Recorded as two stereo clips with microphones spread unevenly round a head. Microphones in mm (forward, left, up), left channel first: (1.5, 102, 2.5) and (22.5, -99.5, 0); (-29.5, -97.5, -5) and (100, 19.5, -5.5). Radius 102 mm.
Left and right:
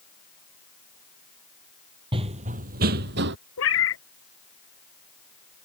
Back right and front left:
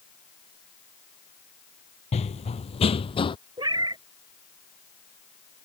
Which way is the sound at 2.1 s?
130° right.